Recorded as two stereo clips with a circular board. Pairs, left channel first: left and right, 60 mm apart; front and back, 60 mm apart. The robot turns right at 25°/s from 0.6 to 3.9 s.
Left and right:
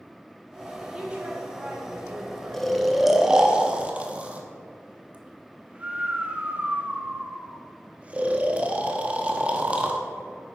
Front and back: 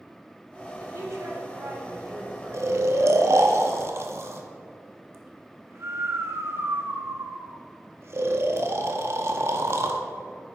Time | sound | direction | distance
0.8 | a woman speaking | 165° right | 2.5 m
2.5 | snoring | 175° left | 0.9 m